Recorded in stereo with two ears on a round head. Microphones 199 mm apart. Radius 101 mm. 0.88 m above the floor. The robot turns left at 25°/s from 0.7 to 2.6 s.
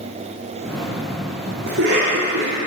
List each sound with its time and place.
1.7 s a cough: 50° right (ahead or behind), 1.9 m; by 2.6 s 70° right (ahead or behind), 1.9 m